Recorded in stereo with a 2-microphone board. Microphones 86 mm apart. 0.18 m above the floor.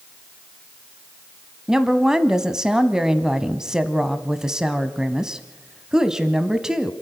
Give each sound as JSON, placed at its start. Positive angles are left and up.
{"t": 1.7, "sound": "a woman speaking", "side_deg": -5, "distance_m": 1.0}